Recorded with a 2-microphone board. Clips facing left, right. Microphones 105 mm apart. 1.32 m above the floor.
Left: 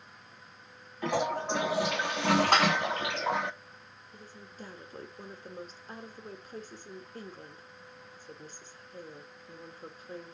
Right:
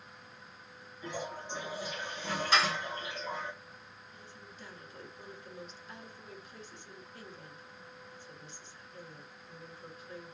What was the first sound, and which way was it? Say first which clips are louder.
A toilet flushing: left 10 dB; 75° left (ahead or behind).